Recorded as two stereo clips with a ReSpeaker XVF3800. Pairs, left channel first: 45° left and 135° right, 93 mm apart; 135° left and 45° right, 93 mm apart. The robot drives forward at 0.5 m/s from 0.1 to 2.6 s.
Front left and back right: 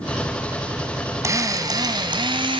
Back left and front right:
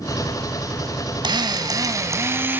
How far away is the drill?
About 1.2 m.